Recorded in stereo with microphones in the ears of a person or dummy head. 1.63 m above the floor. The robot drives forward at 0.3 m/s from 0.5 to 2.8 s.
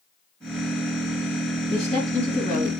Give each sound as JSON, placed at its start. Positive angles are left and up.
{"t": 1.7, "sound": "a woman speaking", "side_deg": 35, "distance_m": 2.0}